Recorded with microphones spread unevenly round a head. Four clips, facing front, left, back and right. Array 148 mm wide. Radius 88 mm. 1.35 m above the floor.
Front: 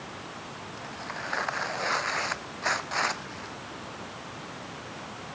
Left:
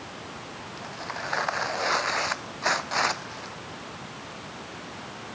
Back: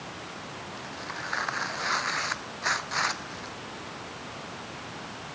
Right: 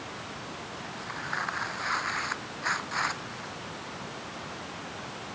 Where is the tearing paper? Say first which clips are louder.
Left 6 dB, front 2 dB; 70° left.